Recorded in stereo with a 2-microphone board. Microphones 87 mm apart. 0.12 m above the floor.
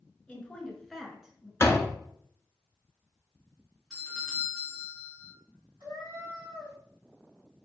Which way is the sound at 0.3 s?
15° left (ahead or behind).